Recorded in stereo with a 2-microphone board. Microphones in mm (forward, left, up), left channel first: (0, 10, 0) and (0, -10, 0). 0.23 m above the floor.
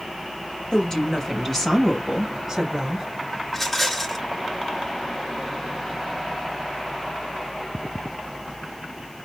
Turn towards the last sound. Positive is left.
turn(degrees=10)  # may be behind; listen again after turning